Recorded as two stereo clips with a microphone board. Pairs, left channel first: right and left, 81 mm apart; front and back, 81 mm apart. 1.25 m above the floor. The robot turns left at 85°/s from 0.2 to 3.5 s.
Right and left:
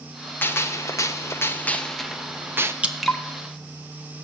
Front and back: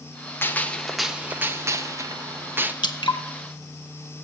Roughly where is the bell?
No bell in this recording.